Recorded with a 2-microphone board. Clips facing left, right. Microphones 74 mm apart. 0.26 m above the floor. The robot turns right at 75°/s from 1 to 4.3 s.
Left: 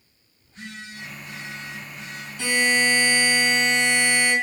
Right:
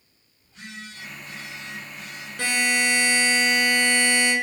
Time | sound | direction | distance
0.4 | a phone buzzing | 105° left | 1.3 m
2.4 | a buzzer | 105° right | 1.2 m